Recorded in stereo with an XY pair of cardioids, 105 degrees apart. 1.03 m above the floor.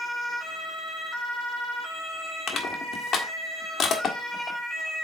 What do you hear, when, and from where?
2.5 s crushing: 50° left, 1.6 m